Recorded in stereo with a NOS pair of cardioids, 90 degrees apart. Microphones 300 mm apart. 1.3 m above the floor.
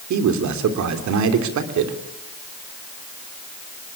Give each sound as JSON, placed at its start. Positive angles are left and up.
{"t": 0.1, "sound": "a man speaking", "azimuth_deg": -70, "distance_m": 3.0}